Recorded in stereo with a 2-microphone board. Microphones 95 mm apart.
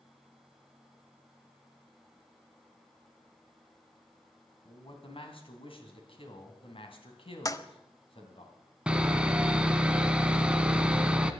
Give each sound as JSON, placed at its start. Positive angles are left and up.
{"t": 4.7, "sound": "a man speaking", "side_deg": 60, "distance_m": 2.5}
{"t": 7.5, "sound": "a toilet flushing", "side_deg": 35, "distance_m": 0.8}
{"t": 8.9, "sound": "sawing", "side_deg": -10, "distance_m": 1.1}